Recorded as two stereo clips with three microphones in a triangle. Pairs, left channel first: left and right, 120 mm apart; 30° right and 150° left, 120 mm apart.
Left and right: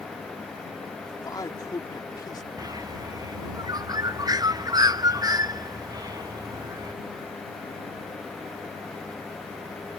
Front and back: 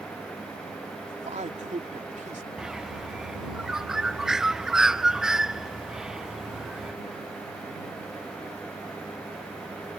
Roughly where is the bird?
Behind right.